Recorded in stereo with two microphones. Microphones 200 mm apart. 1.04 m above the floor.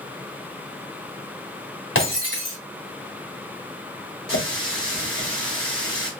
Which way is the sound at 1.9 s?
75° left (ahead or behind).